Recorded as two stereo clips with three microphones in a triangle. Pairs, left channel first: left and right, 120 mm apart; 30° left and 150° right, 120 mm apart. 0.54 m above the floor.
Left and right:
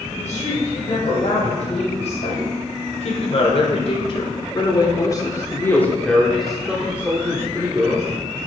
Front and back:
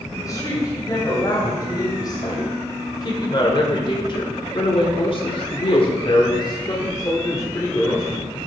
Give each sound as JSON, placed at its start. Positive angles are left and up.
{"t": 0.1, "sound": "a woman speaking", "azimuth_deg": 90, "distance_m": 3.5}